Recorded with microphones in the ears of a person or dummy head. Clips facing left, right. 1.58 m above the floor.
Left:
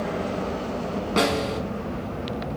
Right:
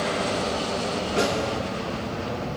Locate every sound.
1.2 s a snare drum: 70° left (ahead or behind), 4.5 m